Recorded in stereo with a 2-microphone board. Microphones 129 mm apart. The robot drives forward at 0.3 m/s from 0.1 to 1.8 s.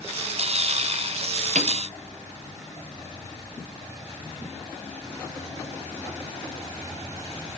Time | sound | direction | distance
1.6 | a piano | 70° right (ahead or behind) | 0.5 m